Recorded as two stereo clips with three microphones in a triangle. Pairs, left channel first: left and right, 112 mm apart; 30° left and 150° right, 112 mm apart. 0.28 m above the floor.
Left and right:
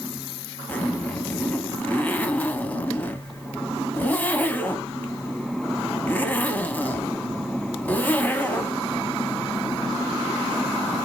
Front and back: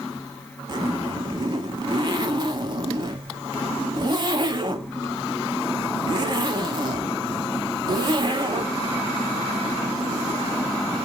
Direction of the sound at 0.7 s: 165° left.